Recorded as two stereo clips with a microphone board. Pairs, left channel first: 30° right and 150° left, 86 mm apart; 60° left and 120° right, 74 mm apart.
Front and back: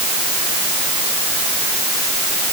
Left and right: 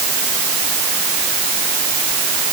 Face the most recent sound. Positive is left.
No sound to turn to.